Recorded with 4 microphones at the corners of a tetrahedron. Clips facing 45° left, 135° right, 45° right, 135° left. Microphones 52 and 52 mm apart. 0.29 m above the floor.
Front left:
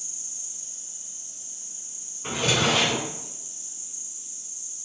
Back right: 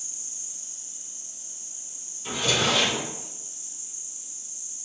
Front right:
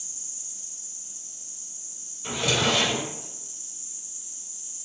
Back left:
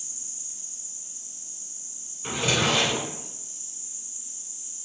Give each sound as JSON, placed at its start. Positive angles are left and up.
{"t": 0.0, "sound": "an insect", "azimuth_deg": -150, "distance_m": 1.2}
{"t": 2.2, "sound": "a drawer", "azimuth_deg": 70, "distance_m": 1.7}